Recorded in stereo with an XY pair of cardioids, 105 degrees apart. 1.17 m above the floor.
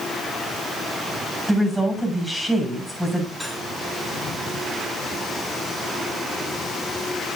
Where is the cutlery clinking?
10° right, 7.5 m.